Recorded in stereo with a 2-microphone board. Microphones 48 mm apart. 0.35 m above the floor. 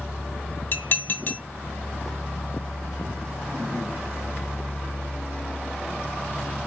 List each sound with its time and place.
0.7 s dishes clattering: 35° left (ahead or behind), 1.0 m